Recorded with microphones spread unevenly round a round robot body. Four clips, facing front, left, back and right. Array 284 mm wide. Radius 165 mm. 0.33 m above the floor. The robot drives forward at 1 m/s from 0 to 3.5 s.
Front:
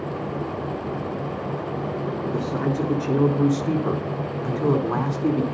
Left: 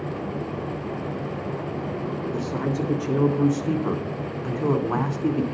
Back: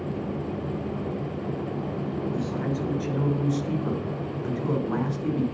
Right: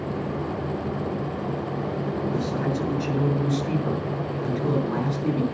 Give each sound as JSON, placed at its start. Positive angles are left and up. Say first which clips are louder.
{"t": 2.3, "sound": "a man speaking", "louder": "right 1 dB, front 4 dB", "azimuth_deg": 25, "distance_m": 5.0}